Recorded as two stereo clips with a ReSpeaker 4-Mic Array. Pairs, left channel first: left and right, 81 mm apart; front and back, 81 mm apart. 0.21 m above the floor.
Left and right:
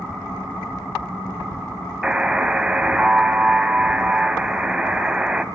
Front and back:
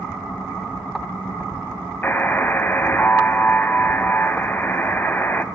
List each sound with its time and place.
2.0 s a buzzer: 25° right, 0.6 m